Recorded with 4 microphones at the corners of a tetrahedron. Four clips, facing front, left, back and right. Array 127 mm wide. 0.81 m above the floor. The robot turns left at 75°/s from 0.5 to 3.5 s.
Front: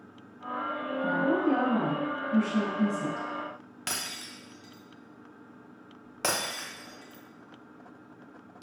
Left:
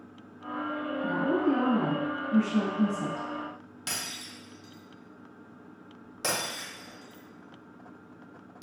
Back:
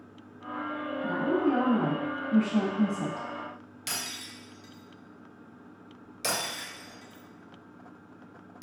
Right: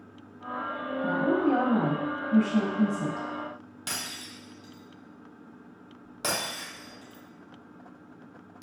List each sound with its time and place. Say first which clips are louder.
1.0 s a woman speaking: right 2 dB, front 1 dB; 50° right, 1.0 m; by 3.3 s 145° left, 1.0 m
3.9 s breaking glass: right 1 dB, front 1 dB; 10° right, 1.0 m